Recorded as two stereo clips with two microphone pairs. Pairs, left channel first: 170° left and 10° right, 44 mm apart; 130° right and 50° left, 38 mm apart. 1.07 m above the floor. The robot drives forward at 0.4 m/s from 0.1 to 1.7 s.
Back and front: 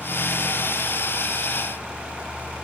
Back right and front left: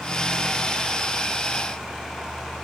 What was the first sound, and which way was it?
Only background noise.